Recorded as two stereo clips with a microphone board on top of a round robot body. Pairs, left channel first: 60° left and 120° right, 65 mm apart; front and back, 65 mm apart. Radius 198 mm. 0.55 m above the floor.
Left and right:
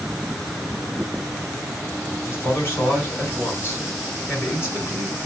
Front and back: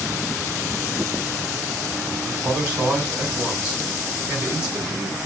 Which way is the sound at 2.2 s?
115° left.